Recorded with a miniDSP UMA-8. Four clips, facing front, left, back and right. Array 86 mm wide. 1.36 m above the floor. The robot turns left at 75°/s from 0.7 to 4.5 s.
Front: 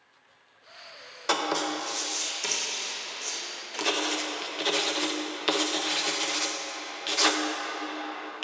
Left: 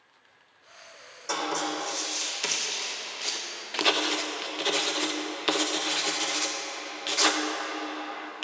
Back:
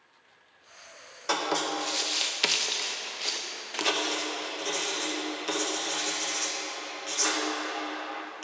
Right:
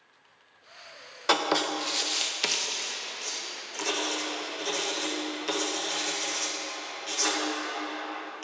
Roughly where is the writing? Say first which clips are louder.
Right 4 dB, front 1 dB; right.